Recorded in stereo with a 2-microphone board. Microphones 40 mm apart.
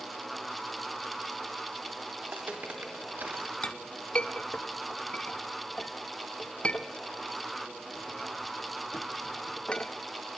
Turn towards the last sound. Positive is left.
turn(degrees=30)  # may be behind; listen again after turning